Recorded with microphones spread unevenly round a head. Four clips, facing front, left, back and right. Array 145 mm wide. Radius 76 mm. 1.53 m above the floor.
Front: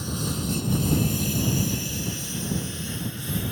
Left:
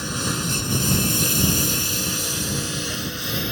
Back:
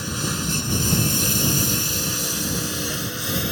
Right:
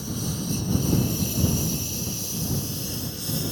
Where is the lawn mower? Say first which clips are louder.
Left 4 dB, back 2 dB; 105° left; by 3.5 s 145° left.